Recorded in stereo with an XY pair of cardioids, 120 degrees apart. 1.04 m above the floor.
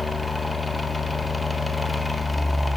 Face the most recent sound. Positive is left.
turn(degrees=10)